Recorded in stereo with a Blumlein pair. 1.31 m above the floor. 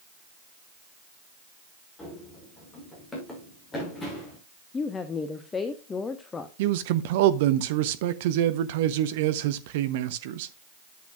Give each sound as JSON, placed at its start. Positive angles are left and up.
{"t": 2.0, "sound": "running footsteps", "azimuth_deg": 20, "distance_m": 5.5}
{"t": 4.7, "sound": "a woman speaking", "azimuth_deg": 20, "distance_m": 0.9}
{"t": 6.6, "sound": "a man speaking", "azimuth_deg": -50, "distance_m": 0.7}